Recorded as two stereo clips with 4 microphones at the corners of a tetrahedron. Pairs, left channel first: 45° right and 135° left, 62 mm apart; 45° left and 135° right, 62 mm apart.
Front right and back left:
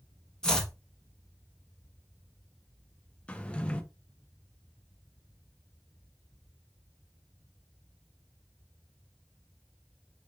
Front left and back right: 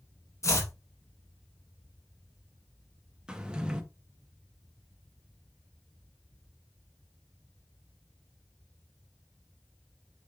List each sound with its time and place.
0.4 s chopping: 30° left, 1.1 m
3.3 s a drawer: 80° right, 0.6 m